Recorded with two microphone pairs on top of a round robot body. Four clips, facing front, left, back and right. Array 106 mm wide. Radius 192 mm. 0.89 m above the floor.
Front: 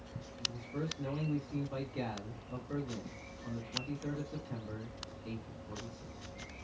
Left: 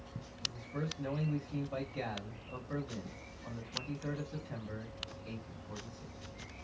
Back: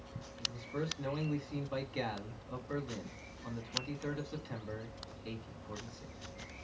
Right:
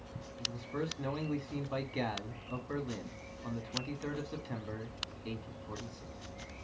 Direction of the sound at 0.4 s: 125° right.